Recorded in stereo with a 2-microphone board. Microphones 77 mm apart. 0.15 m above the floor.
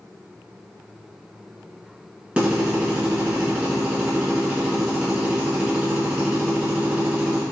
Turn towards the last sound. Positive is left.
turn(degrees=-15)  # may be behind; listen again after turning